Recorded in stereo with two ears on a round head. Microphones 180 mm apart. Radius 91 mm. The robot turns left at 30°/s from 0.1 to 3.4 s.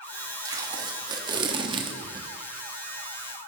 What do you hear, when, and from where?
0.5 s tape being pulled: 15° right (ahead or behind), 1.0 m; by 2.3 s 25° right (ahead or behind), 1.0 m